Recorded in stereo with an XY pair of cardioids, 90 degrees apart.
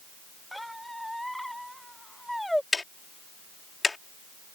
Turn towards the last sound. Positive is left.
turn(degrees=25)